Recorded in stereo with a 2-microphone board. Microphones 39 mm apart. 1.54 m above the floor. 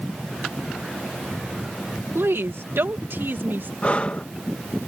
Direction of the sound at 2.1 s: 85° right.